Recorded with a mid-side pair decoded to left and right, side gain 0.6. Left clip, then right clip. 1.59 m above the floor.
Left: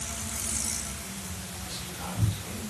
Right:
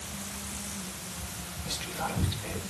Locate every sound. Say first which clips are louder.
1.6 s whispering: right 6 dB; 45° right, 6.5 m